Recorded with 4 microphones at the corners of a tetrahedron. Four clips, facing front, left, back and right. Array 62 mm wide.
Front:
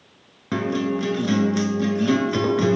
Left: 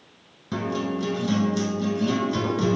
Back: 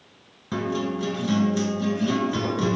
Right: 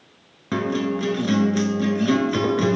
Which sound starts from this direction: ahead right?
A guitar, at 0.5 s.